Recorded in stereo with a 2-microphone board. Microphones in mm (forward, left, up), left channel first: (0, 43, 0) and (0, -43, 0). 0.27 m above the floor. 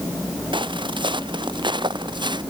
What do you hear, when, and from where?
0.5 s footsteps: 70° right (ahead or behind); by 2.4 s 60° right (ahead or behind)